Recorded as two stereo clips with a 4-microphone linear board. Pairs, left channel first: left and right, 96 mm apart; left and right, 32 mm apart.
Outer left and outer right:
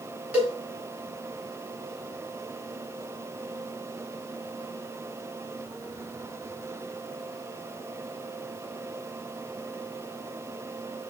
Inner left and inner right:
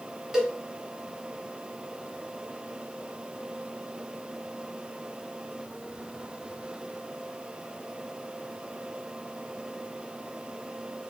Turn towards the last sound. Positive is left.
turn(degrees=-15)  # may be behind; listen again after turning